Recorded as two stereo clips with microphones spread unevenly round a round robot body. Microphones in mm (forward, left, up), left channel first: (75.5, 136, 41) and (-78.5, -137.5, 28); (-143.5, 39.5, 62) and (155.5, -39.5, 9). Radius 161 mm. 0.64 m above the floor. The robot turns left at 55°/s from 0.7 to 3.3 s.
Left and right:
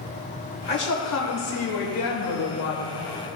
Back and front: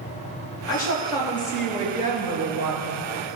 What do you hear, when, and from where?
0.7 s a woman speaking: 125° left, 2.5 m; by 3.3 s 20° right, 2.5 m